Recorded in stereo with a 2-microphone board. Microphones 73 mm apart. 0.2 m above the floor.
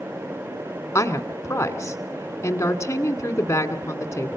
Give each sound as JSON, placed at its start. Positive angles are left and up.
{"t": 0.9, "sound": "a woman speaking", "side_deg": 40, "distance_m": 1.7}